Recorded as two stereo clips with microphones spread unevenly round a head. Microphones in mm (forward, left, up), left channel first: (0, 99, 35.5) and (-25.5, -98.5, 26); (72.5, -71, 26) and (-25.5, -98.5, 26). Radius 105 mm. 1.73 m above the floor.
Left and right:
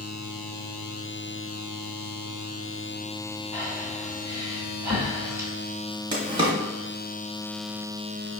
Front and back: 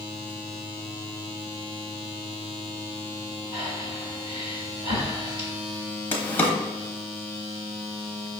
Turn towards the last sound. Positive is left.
turn(degrees=-40)